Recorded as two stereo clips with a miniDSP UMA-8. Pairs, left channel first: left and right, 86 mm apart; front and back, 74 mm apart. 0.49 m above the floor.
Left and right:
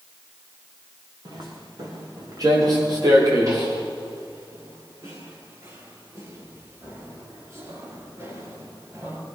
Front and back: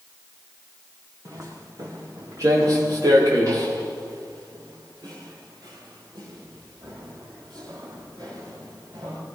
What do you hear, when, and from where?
1.2 s footsteps: 130° right, 5.5 m; by 9.2 s 150° right, 10 m